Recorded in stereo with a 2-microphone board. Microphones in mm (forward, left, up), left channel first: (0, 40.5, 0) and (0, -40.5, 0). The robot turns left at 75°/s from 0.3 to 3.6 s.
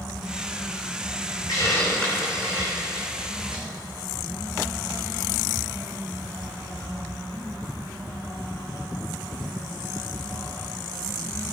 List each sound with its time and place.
1.5 s a hiss: 50° left (ahead or behind), 5 m; by 3.6 s 70° right (ahead or behind), 5 m